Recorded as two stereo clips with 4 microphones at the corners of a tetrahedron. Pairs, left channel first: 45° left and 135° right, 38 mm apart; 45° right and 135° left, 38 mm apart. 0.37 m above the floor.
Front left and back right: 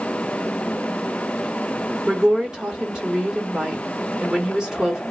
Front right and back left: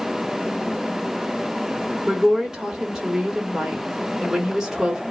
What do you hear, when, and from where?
2.1 s a woman speaking: 175° right, 1.0 m